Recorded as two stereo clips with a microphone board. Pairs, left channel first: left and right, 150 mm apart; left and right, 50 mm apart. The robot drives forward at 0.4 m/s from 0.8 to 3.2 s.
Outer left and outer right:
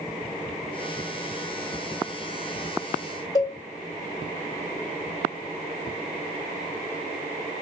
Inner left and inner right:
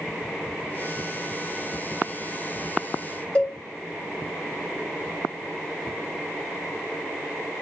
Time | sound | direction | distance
3.4 | a cowbell | 20° left (ahead or behind) | 1.4 m